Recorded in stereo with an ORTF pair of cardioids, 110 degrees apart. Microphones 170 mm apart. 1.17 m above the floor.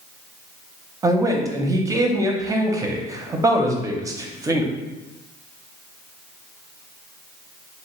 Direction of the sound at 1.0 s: 20° right.